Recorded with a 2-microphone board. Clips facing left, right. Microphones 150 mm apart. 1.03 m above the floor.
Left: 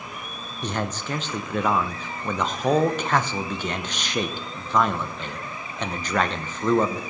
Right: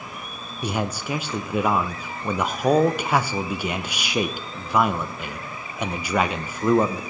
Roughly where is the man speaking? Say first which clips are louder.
Right 2 dB; centre.